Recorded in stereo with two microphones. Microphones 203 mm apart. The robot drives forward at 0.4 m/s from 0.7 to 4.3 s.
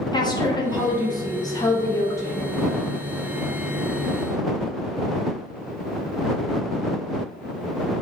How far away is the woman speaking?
About 0.7 m.